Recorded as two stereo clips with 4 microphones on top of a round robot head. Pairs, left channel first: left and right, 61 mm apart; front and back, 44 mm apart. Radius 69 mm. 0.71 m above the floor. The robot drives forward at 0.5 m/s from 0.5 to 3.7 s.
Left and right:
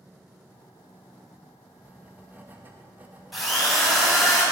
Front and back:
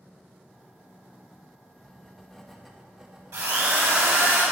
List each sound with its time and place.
1.8 s writing: 55° right, 1.1 m; by 4.3 s 140° right, 1.2 m
3.3 s a drill: straight behind, 2.5 m